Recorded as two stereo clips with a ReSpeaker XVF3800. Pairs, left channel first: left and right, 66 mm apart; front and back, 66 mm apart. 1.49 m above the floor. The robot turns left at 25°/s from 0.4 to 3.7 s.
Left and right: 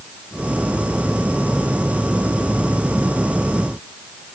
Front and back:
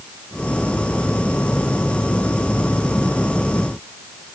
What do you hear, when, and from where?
Only background noise.